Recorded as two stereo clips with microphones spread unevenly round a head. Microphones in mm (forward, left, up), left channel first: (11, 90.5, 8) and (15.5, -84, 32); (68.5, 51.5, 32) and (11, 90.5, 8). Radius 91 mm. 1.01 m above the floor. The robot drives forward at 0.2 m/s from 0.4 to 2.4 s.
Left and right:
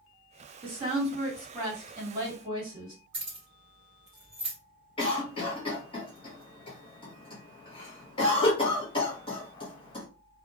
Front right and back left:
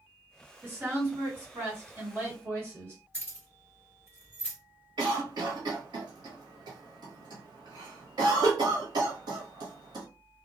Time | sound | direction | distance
0.6 | a woman speaking | 155° right | 1.6 m
3.1 | keys jangling | 150° right | 1.4 m
5.0 | a cough | 155° left | 0.9 m